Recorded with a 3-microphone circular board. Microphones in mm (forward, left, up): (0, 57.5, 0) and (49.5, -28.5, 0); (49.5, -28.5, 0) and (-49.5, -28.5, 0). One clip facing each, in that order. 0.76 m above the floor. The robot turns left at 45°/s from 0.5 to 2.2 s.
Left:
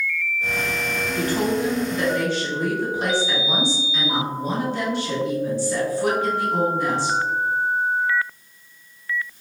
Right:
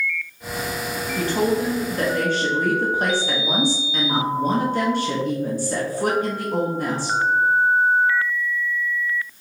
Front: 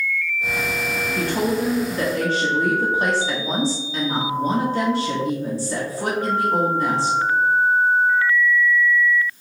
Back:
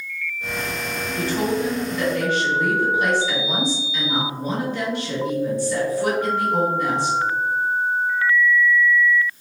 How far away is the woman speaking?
About 0.8 m.